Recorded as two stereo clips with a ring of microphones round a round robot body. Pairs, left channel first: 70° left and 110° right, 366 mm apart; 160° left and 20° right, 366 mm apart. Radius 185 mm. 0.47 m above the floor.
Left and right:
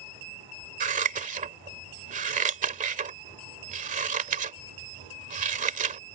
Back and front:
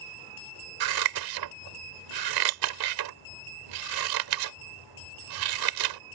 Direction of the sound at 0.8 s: 45° right.